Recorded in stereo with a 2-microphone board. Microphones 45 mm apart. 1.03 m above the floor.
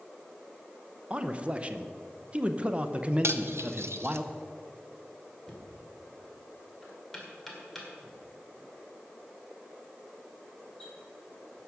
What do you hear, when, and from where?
1.1 s a man speaking: 30° right (ahead or behind), 0.6 m
3.2 s cutlery clinking: 75° right (ahead or behind), 0.6 m
5.5 s knocking: 5° left (ahead or behind), 2 m